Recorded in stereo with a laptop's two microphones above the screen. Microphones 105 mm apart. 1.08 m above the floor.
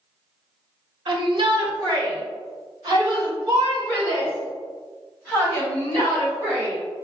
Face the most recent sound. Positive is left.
turn(degrees=-35)  # may be behind; listen again after turning